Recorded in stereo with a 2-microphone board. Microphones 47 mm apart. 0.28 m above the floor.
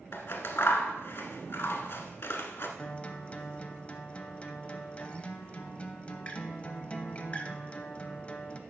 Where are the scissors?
60° left (ahead or behind), 0.9 m.